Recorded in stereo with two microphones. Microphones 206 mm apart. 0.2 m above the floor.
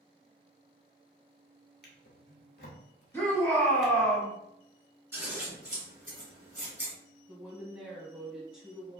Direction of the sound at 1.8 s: 55° left (ahead or behind).